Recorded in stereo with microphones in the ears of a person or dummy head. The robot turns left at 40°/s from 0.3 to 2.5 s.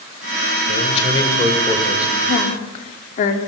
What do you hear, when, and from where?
0.7 s a man speaking: 45° left, 4 m; by 2.1 s 10° right, 4 m
2.3 s a woman speaking: 50° left (ahead or behind), 3.5 m; by 3.4 s 40° left (ahead or behind), 3.5 m